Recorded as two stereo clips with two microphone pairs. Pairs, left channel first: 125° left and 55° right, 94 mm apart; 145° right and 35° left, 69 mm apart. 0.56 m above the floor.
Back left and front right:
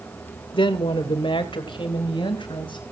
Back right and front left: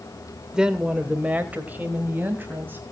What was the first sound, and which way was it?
A woman speaking, 110° left.